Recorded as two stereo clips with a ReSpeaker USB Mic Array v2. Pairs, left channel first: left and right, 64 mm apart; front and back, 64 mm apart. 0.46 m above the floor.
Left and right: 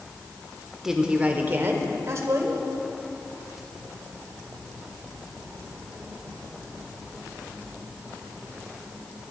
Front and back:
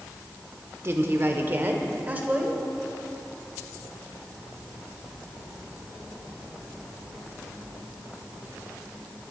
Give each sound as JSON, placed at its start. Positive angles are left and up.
{"t": 0.8, "sound": "a woman speaking", "azimuth_deg": -170, "distance_m": 1.0}